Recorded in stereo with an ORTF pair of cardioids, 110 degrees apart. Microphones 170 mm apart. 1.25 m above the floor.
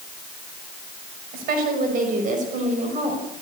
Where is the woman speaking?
70° right, 6 m; by 3.2 s 40° right, 6 m.